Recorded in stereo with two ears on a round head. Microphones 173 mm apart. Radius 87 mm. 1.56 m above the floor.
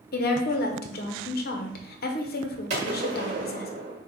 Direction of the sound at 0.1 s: 50° left (ahead or behind).